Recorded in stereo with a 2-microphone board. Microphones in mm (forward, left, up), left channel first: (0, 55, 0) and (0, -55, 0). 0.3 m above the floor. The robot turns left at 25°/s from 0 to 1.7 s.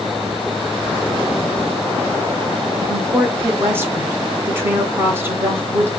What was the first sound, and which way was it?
A woman speaking, 20° right (ahead or behind).